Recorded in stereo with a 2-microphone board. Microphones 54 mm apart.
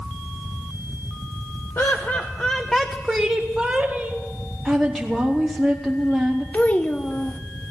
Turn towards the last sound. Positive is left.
turn(degrees=30)  # may be behind; listen again after turning